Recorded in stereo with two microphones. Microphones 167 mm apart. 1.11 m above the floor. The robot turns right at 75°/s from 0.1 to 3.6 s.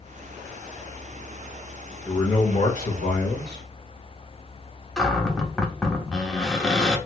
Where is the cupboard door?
5° left (ahead or behind), 0.7 m.